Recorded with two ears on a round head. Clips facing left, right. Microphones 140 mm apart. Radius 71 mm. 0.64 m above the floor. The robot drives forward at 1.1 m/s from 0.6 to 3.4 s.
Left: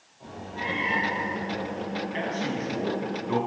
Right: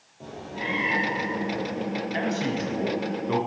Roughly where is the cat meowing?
Right.